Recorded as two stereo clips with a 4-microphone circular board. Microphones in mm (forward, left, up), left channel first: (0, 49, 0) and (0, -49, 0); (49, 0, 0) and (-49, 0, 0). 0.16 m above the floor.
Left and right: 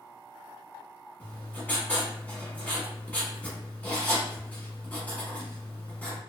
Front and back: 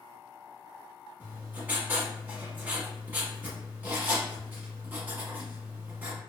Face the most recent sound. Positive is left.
turn(degrees=140)